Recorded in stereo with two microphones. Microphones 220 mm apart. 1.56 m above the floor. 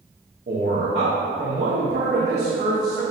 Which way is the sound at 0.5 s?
50° right (ahead or behind).